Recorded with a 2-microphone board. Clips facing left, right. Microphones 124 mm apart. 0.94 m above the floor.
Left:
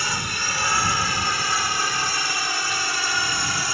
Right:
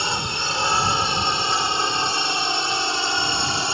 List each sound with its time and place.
0.0 s a drone: 25° right (ahead or behind)